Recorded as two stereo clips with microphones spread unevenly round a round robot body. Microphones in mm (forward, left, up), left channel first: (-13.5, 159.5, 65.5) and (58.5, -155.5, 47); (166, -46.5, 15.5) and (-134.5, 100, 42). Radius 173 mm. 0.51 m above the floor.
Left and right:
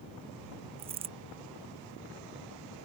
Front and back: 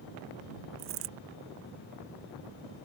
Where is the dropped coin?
150° right.